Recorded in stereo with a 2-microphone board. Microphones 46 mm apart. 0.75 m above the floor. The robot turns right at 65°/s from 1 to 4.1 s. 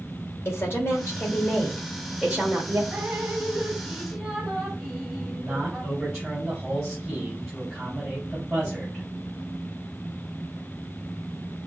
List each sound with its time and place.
0.5 s a woman speaking: 120° left, 2 m; by 2.8 s 120° right, 2 m
2.9 s dripping: 95° right, 2.5 m; by 5.9 s 20° right, 2.5 m
5.3 s a man speaking: 15° right (ahead or behind), 3 m